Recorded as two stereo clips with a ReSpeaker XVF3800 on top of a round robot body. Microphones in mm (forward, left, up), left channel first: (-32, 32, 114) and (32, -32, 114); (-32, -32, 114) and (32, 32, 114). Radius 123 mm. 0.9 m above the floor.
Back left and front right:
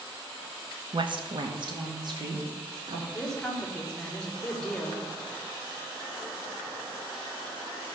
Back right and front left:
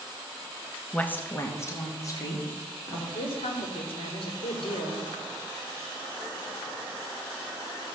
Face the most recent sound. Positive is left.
turn(degrees=-145)